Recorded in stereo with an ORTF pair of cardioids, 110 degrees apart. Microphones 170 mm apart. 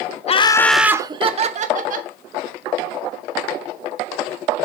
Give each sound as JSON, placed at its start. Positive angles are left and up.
{"t": 0.3, "sound": "laughter", "azimuth_deg": 35, "distance_m": 0.8}